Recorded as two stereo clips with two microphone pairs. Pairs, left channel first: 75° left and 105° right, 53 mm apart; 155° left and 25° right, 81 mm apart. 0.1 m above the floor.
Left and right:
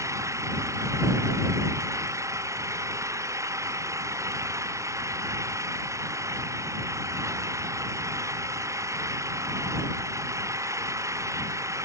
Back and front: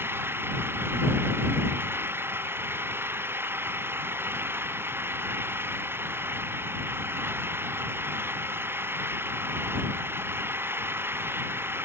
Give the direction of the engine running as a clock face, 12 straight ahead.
3 o'clock.